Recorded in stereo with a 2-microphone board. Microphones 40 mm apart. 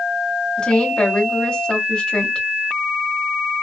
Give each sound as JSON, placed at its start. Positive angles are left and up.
{"t": 0.6, "sound": "a woman speaking", "side_deg": 25, "distance_m": 1.2}